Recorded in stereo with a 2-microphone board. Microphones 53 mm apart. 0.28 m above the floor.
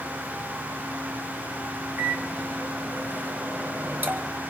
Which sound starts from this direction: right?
A microwave, at 2.0 s.